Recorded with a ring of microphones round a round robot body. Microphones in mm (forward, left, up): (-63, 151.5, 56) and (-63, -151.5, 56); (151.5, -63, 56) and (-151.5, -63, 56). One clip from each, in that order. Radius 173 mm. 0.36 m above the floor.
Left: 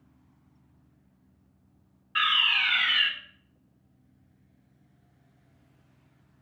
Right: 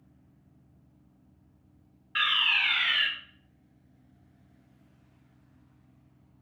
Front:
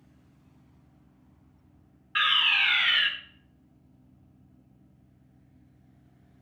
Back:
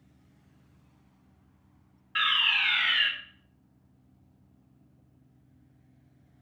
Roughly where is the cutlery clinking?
No cutlery clinking in this recording.